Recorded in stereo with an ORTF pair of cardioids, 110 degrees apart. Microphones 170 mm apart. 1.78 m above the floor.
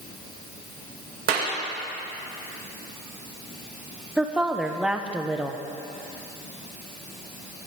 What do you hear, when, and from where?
1.3 s a clap: 60° right, 2.5 m
4.2 s a woman speaking: 5° right, 1.2 m